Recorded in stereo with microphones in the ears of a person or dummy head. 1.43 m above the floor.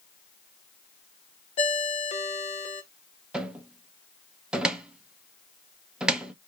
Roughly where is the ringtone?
Left.